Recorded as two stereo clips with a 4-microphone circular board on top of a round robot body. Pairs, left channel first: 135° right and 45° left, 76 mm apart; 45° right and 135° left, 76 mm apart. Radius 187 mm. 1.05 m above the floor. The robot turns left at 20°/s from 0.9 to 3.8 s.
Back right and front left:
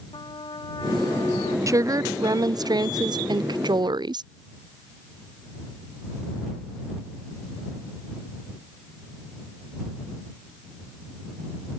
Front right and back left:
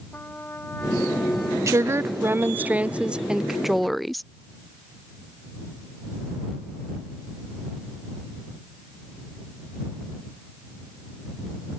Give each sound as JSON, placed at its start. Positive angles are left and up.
{"t": 0.1, "sound": "a trumpet", "azimuth_deg": -110}
{"t": 1.7, "sound": "a woman speaking", "azimuth_deg": 90}